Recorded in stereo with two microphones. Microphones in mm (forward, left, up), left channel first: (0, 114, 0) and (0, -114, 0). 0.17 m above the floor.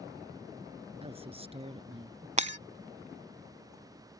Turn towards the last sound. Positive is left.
turn(degrees=-30)  # may be behind; listen again after turning